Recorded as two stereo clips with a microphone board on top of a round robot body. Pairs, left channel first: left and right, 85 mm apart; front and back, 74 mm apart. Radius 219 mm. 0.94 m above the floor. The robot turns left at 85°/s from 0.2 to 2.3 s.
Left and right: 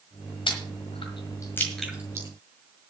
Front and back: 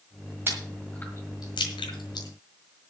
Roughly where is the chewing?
Behind left.